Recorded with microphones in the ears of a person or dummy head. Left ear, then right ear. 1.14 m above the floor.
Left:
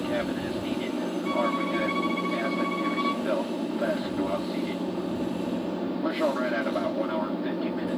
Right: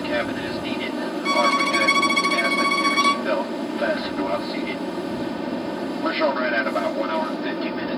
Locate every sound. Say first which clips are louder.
0.0 s an aircraft: right 5 dB; 55° right (ahead or behind)
1.2 s a violin: right 9 dB; 55° right (ahead or behind)